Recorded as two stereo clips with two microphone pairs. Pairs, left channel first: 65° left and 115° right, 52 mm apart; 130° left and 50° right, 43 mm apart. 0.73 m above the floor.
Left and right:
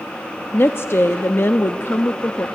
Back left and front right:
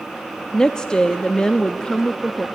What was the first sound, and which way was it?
A woman speaking, 70° left.